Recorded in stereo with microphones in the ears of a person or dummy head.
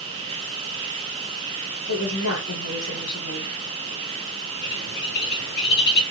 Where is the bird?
55° left (ahead or behind), 2 m.